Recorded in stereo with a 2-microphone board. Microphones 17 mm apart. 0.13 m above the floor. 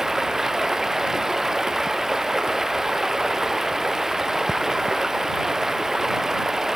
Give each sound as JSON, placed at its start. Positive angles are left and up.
{"t": 0.0, "sound": "running water", "side_deg": -20}